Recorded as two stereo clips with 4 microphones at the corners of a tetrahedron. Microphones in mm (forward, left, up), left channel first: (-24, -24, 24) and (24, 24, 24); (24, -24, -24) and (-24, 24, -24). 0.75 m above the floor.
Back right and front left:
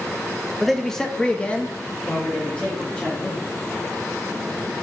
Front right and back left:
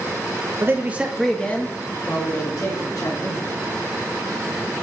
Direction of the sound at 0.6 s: 135° left.